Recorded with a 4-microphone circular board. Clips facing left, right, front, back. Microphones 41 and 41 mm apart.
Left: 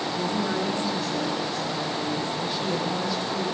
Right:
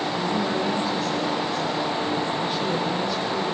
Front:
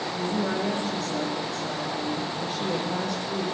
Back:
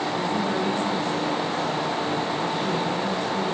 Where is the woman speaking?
25° right, 8.5 m.